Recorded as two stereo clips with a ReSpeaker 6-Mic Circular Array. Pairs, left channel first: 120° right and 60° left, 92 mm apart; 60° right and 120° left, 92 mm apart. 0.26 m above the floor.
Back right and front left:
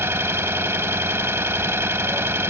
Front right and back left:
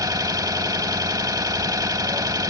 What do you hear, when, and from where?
0.0 s an engine running: 105° left, 0.8 m